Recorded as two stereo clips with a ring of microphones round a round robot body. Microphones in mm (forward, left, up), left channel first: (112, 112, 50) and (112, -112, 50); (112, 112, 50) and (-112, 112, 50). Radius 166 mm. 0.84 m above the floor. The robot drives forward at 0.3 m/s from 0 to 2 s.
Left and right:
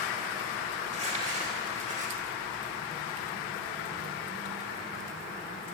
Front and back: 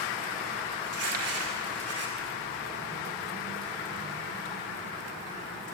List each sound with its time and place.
0.8 s crumpling: 165° right, 1.8 m